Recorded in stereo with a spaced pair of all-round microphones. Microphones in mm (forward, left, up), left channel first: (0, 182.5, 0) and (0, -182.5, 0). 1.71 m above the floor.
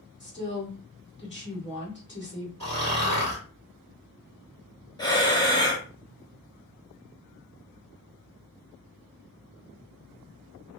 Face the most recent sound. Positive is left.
turn(degrees=10)  # may be behind; listen again after turning